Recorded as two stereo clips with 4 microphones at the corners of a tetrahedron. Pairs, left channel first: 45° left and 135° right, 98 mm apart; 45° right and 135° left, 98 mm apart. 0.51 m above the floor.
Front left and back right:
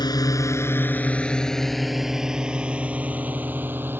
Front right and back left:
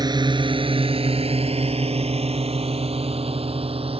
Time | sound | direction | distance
0.0 | a drone | 90° left | ?